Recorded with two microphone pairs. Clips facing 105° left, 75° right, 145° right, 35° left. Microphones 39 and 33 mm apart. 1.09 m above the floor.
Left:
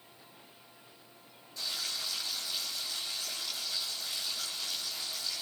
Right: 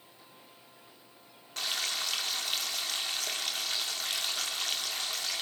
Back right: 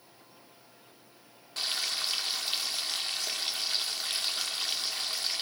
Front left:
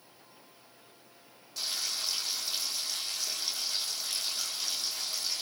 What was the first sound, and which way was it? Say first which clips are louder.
Frying: right 4 dB, back right 3 dB; 95° right.